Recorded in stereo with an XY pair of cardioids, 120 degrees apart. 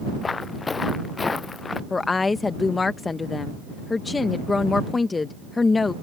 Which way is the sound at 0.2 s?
25° left.